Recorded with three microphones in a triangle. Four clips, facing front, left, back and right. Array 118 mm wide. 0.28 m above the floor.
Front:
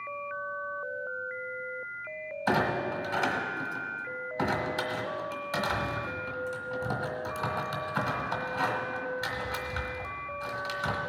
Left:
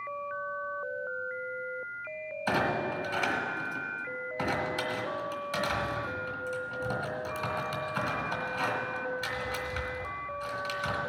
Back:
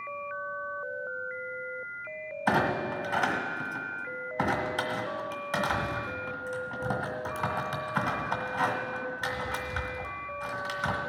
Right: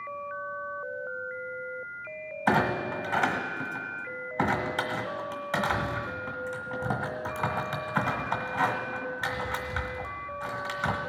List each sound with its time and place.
2.5 s a clunk: 105° right, 1.8 m